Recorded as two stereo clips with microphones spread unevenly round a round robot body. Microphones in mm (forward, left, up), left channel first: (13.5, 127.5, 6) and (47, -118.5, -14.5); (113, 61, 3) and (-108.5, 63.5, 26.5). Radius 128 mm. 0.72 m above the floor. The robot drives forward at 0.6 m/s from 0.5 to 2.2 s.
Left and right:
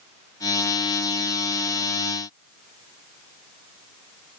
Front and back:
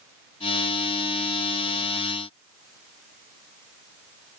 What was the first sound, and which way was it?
Only background noise.